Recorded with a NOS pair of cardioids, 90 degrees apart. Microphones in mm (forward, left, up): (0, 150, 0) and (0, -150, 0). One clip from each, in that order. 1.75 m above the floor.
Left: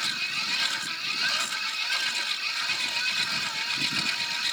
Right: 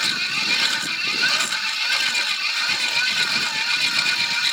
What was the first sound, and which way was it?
A machine running, 50° right.